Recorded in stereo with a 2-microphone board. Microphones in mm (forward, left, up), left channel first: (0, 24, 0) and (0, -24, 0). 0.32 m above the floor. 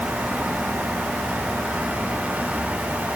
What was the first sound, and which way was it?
Only background noise.